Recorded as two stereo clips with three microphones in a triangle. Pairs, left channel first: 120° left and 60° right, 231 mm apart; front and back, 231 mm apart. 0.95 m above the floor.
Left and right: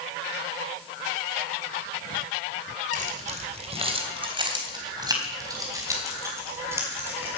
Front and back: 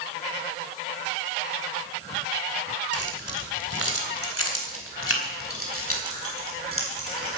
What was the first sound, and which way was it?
Keys jangling, 5° right.